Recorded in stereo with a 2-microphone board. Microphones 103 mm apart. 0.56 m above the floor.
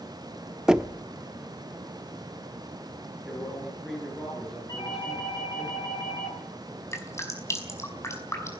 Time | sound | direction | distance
0.7 | knocking | 5° right (ahead or behind) | 0.8 m
3.2 | a man speaking | 5° right (ahead or behind) | 8 m
4.7 | a doorbell | 35° left (ahead or behind) | 7.5 m
6.9 | dripping | 25° left (ahead or behind) | 5 m